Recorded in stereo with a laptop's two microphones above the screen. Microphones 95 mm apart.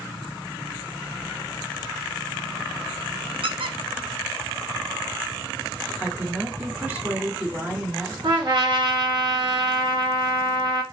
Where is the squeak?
70° right (ahead or behind), 0.6 m.